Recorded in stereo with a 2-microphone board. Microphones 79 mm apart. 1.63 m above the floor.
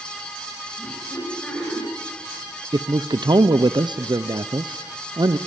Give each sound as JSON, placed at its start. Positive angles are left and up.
{"t": 0.8, "sound": "laughter", "side_deg": 5, "distance_m": 7.5}
{"t": 2.7, "sound": "a man speaking", "side_deg": -70, "distance_m": 0.7}